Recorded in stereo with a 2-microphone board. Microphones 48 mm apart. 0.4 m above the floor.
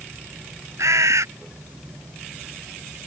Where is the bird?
90° right.